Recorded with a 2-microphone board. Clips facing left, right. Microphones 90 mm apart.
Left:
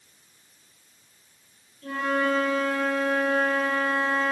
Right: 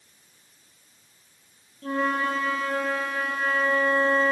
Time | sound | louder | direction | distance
1.8 | a flute | even | 40° right (ahead or behind) | 4.5 m